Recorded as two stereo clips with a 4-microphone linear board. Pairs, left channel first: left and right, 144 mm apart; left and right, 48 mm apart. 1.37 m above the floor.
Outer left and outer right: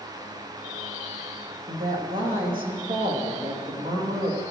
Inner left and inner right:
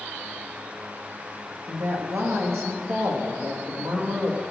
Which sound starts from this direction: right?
A woman speaking, at 1.7 s.